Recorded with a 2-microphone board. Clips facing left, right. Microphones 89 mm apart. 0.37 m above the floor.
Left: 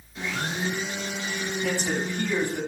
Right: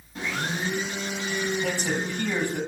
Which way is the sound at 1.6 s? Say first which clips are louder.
Even; 55° right (ahead or behind).